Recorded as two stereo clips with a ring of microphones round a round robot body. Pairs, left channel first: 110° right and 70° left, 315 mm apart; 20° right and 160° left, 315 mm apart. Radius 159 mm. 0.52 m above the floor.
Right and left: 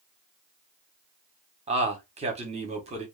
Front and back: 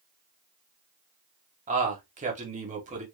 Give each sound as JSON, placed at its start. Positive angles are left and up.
{"t": 1.7, "sound": "a man speaking", "azimuth_deg": 115, "distance_m": 1.0}